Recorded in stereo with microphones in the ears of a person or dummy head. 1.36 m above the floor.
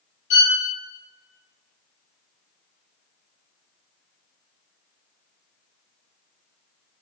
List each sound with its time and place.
0.3 s a violin: 55° left (ahead or behind), 3 m